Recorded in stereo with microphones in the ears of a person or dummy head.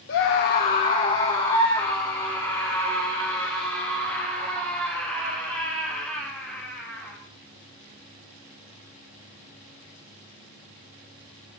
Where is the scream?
60° left (ahead or behind), 1.5 m; by 7.2 s 5° left (ahead or behind), 9 m.